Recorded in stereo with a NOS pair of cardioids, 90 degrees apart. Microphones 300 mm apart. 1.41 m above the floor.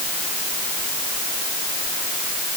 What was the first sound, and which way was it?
Only background noise.